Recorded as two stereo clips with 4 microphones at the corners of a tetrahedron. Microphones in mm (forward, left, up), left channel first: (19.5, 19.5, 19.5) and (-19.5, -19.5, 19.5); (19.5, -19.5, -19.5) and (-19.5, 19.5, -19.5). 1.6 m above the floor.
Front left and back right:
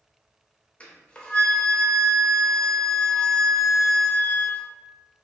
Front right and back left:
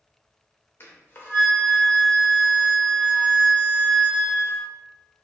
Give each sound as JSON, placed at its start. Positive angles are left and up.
{"t": 0.8, "sound": "a flute", "azimuth_deg": -20, "distance_m": 0.7}